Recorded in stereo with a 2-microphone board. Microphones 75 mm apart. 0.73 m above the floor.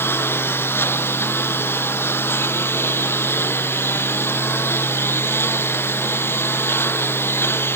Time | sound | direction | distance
0.0 | a lawn mower | 30° left (ahead or behind) | ?